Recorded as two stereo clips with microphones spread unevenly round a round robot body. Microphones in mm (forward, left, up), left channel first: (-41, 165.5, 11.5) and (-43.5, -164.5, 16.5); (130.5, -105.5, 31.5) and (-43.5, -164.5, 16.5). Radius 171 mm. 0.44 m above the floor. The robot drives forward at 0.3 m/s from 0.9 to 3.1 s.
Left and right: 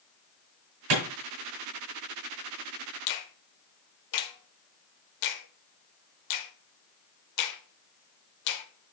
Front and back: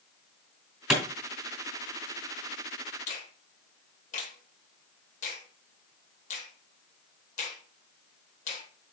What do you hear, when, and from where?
0.9 s a clap: 75° right, 4 m
3.1 s a finger snap: 75° left, 1.1 m